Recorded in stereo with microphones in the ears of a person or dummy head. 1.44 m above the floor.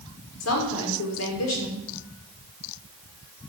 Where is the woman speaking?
80° left, 5.5 m.